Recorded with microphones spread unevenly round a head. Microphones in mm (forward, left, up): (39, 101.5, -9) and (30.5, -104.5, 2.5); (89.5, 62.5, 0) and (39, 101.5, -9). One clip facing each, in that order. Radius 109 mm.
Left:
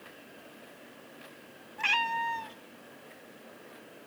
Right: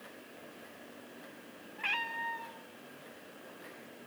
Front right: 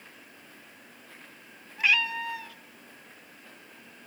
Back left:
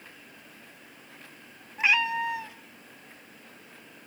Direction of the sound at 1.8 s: 75° left.